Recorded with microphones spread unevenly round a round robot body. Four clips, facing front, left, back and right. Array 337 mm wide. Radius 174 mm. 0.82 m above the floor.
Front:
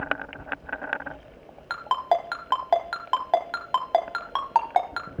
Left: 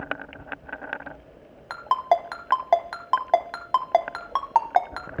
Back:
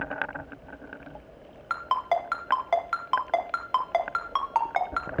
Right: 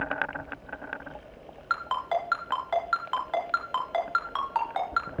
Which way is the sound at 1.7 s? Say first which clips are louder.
Left 6 dB, front 2 dB; 55° left.